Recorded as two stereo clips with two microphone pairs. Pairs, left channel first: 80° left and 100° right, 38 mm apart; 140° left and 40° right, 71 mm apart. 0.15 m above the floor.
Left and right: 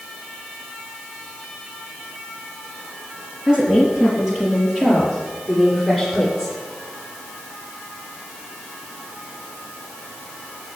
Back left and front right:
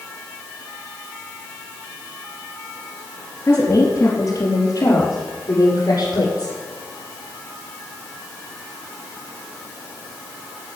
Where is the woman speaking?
175° right, 4 m; by 6.5 s 170° left, 6.5 m.